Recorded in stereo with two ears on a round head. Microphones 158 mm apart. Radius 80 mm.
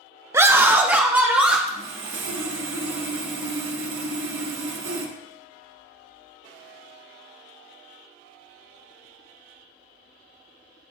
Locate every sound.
0.3 s a scream: 15° right (ahead or behind), 0.5 m; by 1.6 s 5° right (ahead or behind), 1.6 m
1.7 s sawing: 85° right, 1.4 m